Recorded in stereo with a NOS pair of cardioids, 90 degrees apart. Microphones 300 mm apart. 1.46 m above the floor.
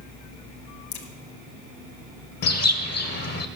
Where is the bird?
55° left, 1.2 m.